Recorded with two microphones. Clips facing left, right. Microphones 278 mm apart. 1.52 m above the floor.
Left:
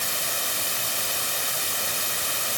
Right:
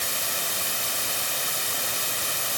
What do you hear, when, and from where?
Only background noise.